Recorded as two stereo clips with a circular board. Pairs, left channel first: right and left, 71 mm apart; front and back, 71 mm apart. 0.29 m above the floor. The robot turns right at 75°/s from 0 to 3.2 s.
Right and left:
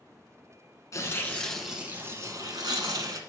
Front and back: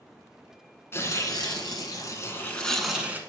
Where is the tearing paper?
50° right, 1.0 m; by 3.2 s 120° left, 1.0 m.